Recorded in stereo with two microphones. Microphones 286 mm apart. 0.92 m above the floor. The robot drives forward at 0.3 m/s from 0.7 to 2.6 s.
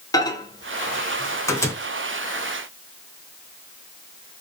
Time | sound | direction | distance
0.1 | a microwave | 15° left (ahead or behind) | 0.5 m